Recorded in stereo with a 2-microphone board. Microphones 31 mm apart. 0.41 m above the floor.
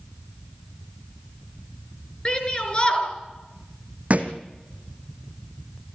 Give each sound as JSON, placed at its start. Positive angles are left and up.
{"t": 2.2, "sound": "a shout", "side_deg": 30, "distance_m": 5.0}
{"t": 4.1, "sound": "a thud", "side_deg": -55, "distance_m": 1.8}